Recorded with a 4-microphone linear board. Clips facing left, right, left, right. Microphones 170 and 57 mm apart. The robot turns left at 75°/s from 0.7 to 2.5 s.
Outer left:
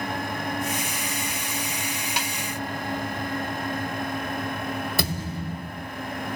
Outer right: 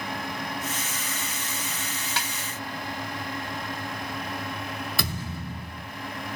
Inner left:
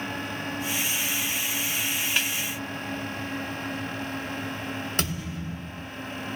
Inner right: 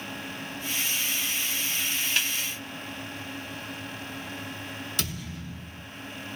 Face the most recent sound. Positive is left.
turn(degrees=40)  # may be behind; listen again after turning